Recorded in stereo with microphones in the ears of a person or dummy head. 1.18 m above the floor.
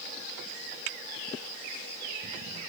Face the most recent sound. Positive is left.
No sound to turn to.